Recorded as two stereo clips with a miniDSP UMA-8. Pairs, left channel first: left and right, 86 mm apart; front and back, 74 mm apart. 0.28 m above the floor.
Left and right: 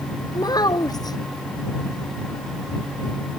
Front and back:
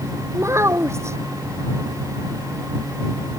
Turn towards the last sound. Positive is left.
turn(degrees=130)